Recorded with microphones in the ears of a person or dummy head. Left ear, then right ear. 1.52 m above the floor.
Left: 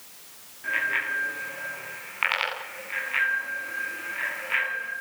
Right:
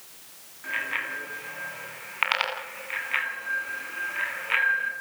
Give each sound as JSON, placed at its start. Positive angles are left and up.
{"t": 0.6, "sound": "a bicycle bell", "side_deg": -15, "distance_m": 9.0}